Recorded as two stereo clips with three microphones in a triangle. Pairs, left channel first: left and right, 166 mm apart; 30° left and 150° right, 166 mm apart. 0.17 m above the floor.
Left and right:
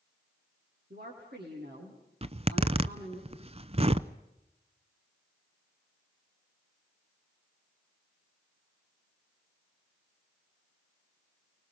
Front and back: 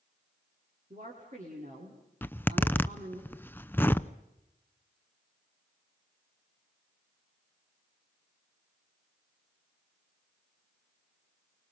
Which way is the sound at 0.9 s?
110° right.